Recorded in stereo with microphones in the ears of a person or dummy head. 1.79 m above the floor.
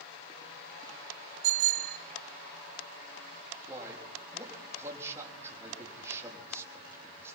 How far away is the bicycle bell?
About 3 m.